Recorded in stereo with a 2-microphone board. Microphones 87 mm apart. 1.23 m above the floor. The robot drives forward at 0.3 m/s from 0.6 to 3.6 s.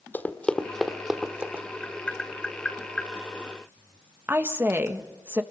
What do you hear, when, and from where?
0.1 s running footsteps: 20° left (ahead or behind), 1.7 m; by 1.6 s 20° right (ahead or behind), 2 m
1.8 s tapping: 15° left (ahead or behind), 1.3 m; by 3.1 s 10° left (ahead or behind), 1.6 m
4.3 s a woman speaking: 25° right (ahead or behind), 1.5 m